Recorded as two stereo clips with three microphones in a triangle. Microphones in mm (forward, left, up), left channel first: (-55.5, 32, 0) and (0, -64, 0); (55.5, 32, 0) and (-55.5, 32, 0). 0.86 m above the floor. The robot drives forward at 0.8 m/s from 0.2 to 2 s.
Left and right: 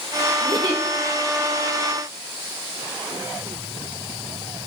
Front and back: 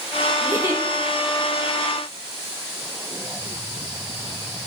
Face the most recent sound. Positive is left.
turn(degrees=-140)